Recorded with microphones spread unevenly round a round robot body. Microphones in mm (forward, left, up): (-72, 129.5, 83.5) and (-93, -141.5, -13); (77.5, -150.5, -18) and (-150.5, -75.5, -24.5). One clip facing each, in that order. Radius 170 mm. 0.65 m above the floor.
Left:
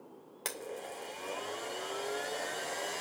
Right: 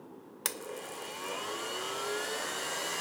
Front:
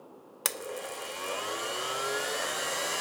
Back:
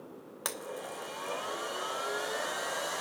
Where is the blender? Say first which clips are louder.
Even, front 3 dB; 60° right, 0.7 m.